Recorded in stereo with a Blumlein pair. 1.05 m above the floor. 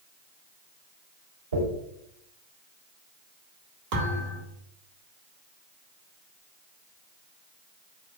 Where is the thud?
45° right, 1.2 m.